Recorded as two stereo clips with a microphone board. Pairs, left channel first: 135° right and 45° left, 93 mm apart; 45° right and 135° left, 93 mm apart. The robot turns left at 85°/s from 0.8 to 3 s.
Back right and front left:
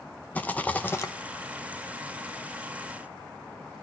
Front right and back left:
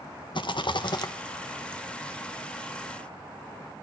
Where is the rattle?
65° right, 1.0 m; by 1.1 s 90° right, 1.0 m.